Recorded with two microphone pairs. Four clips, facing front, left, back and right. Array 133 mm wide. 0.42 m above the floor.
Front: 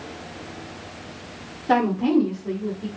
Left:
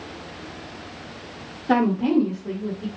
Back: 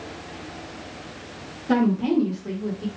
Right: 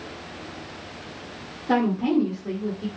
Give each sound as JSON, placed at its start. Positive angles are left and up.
{"t": 1.7, "sound": "a woman speaking", "azimuth_deg": 35, "distance_m": 1.6}